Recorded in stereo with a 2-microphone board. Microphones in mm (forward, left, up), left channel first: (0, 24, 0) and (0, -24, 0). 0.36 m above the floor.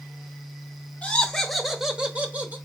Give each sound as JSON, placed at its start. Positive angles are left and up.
{"t": 1.0, "sound": "laughter", "side_deg": 25, "distance_m": 0.9}